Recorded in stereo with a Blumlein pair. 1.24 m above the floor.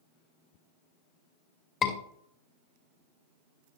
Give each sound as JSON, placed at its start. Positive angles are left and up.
{"t": 1.8, "sound": "a scream", "azimuth_deg": 25, "distance_m": 2.5}